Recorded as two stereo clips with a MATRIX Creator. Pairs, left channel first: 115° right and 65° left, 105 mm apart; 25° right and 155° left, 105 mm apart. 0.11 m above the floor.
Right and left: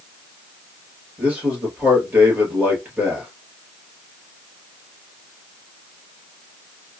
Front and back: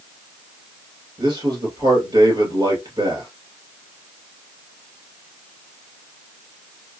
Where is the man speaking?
140° left, 2 m.